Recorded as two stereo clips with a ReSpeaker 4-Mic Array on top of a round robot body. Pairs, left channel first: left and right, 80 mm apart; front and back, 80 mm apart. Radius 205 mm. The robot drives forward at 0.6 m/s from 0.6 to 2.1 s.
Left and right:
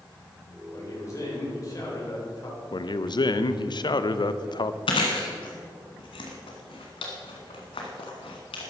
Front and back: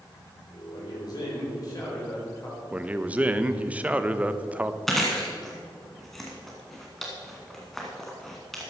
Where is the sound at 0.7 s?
40° left, 4.5 m; by 2.6 s 45° left, 4 m.